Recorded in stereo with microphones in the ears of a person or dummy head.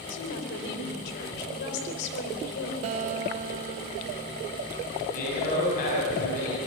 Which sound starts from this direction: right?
A guitar, at 2.8 s.